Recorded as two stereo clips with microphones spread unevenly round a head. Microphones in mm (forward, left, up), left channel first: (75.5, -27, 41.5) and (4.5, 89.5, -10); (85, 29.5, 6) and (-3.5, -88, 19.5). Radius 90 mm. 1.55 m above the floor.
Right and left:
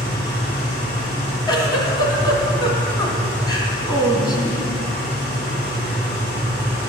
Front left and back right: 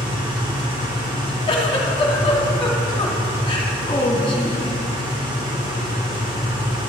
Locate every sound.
0.0 s an engine running: 70° right, 4.5 m
1.5 s a giggle: 5° right, 1.8 m